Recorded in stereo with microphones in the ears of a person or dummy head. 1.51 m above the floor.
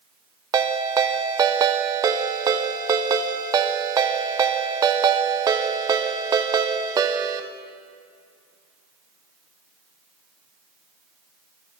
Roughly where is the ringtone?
Right.